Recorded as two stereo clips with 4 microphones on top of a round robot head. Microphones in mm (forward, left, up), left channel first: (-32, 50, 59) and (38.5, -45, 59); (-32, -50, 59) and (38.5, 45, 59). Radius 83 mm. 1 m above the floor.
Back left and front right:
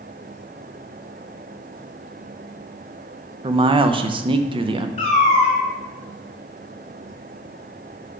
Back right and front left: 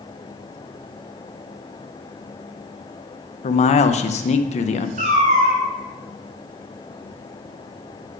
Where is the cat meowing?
85° left, 2 m.